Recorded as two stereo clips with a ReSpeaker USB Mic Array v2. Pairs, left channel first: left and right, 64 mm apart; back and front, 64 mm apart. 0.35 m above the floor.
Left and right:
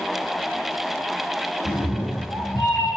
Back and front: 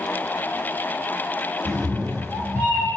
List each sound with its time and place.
1.6 s a cat meowing: 90° left, 1.4 m; by 2.9 s 55° left, 0.7 m